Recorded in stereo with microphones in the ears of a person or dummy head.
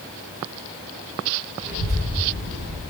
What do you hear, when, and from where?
1.6 s a child speaking: 45° right (ahead or behind), 4 m; by 2.8 s 35° right (ahead or behind), 5.5 m